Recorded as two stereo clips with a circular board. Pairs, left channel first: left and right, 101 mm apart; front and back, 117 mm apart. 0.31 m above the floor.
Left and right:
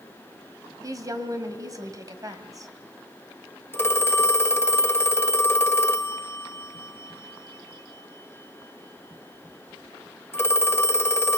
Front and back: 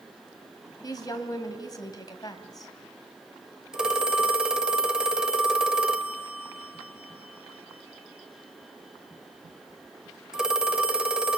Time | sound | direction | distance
0.8 | a woman speaking | 45° right | 1.8 m
3.7 | a phone ringing | 105° left | 0.9 m